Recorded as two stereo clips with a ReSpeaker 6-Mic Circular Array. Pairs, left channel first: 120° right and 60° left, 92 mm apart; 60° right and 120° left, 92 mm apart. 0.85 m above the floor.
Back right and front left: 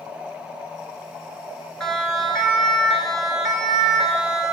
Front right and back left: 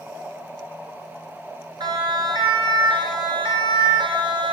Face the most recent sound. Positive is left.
turn(degrees=145)